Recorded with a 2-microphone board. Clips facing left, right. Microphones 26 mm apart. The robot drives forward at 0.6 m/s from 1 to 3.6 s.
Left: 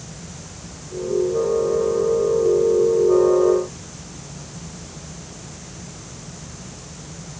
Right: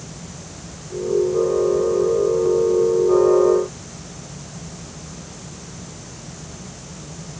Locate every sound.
Only background noise.